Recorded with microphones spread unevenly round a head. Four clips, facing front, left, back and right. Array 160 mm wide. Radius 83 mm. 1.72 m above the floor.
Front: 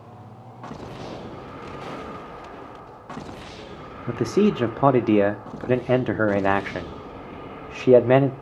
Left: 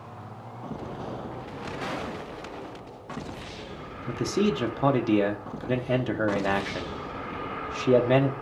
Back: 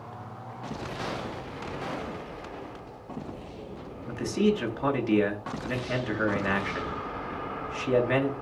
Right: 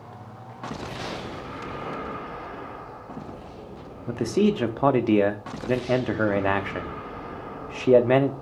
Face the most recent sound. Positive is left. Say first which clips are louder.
# right 3 dB, front 5 dB
turn(degrees=-15)